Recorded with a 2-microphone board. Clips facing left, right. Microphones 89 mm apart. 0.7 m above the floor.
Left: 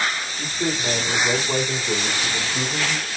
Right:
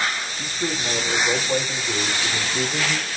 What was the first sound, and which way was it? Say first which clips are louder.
A man speaking: left 3 dB; 65° left (ahead or behind).